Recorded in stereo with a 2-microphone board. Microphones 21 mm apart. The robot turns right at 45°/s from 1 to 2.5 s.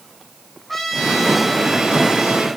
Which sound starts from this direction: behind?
A trumpet, at 0.7 s.